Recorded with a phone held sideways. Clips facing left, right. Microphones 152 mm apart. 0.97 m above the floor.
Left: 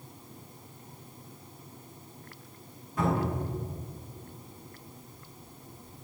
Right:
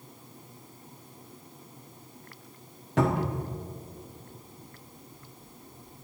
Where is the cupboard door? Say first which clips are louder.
Right 2 dB; 70° right (ahead or behind), 0.9 m.